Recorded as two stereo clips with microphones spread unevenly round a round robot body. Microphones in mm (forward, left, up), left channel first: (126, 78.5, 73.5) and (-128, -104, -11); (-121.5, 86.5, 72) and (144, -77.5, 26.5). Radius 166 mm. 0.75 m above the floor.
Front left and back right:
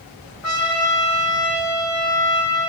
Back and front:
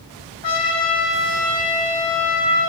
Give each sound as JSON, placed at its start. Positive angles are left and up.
{"t": 0.4, "sound": "a trumpet", "azimuth_deg": 95, "distance_m": 7.0}